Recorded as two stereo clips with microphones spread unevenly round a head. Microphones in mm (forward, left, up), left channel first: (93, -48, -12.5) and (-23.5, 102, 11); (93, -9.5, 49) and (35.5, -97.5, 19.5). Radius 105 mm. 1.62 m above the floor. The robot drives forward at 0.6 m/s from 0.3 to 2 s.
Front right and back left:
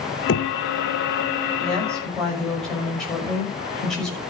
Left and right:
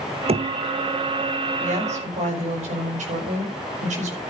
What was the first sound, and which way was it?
Knocking, 95° right.